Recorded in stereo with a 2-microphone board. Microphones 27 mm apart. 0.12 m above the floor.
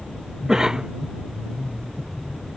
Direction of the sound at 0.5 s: 25° right (ahead or behind).